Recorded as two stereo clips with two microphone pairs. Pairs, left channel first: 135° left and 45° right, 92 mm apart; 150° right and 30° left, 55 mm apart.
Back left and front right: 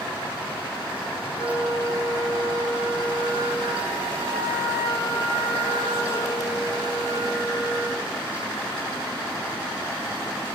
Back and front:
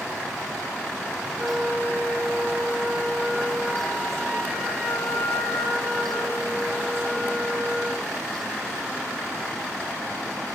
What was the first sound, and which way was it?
A flute, 130° left.